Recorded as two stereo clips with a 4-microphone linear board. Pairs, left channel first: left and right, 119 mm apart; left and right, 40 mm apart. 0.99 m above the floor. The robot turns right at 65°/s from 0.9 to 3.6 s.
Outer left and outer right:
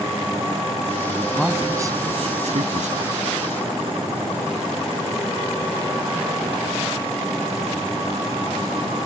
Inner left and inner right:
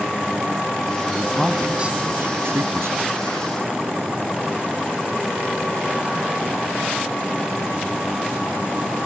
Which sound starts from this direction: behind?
A man speaking, at 1.1 s.